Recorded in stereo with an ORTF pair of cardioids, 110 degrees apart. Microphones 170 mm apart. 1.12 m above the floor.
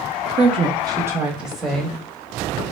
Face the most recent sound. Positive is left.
turn(degrees=15)